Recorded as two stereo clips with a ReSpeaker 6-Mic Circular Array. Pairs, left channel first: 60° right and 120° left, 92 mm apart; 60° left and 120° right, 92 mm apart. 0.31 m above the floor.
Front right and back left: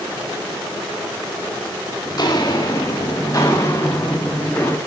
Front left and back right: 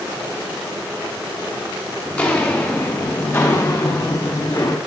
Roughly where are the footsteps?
Ahead.